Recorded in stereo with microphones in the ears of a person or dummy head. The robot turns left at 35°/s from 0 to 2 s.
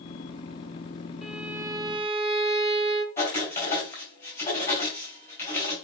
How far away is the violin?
About 0.7 m.